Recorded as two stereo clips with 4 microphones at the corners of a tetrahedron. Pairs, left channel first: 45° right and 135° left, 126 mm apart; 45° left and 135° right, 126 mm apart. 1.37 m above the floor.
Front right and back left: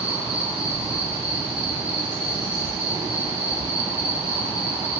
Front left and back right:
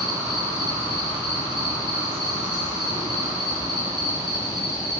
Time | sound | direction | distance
0.0 | an insect | 175° left | 6 m